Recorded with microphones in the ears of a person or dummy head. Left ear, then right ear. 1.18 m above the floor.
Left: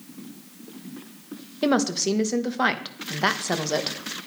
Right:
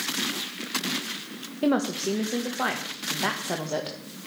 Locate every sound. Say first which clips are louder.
1.6 s a woman speaking: left 3 dB; 70° left (ahead or behind), 1.3 m